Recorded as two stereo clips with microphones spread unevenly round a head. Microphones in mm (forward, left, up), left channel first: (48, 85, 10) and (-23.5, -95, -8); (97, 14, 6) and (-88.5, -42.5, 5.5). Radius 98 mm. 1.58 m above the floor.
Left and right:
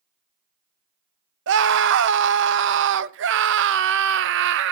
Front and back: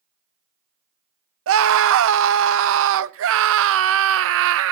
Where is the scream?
145° right, 0.8 m.